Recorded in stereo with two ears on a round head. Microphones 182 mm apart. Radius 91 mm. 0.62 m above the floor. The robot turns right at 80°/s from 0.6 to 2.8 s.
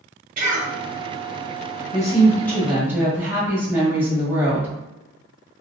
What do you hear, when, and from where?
0.4 s a cough: 45° right (ahead or behind), 1.6 m; by 0.7 s 50° right (ahead or behind), 1.6 m
1.9 s a woman speaking: 125° left, 1.5 m; by 4.7 s 165° right, 1.5 m